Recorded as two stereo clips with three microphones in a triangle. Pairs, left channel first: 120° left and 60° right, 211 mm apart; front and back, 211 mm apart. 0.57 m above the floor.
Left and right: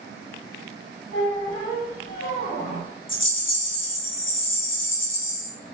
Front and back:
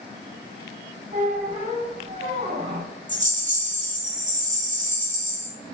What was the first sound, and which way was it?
A squeak, 140° left.